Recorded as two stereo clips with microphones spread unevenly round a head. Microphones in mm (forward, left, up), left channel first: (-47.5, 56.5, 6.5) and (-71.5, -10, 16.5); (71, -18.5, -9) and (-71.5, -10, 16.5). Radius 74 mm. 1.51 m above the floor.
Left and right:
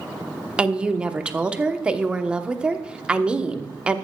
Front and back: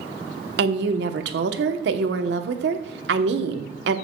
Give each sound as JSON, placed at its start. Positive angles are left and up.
{"t": 0.6, "sound": "a woman speaking", "azimuth_deg": 175, "distance_m": 1.1}